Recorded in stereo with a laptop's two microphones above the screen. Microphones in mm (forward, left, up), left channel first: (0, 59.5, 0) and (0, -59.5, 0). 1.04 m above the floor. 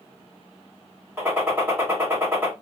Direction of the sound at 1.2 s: 20° right (ahead or behind).